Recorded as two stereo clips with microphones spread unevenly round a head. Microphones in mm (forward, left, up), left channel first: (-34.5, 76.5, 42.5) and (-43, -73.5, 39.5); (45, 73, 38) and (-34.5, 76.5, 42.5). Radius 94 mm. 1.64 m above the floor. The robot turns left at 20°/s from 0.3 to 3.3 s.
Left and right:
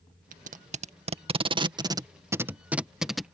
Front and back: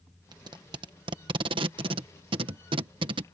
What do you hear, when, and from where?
0.3 s tape being pulled: 125° right; by 3.2 s 175° left